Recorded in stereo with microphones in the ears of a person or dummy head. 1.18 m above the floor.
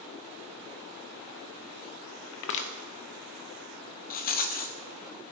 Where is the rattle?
50° left (ahead or behind), 0.7 m.